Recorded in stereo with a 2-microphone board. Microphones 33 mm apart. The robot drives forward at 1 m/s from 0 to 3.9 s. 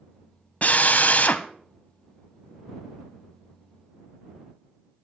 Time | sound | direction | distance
0.6 | a drill | 50° left (ahead or behind) | 0.8 m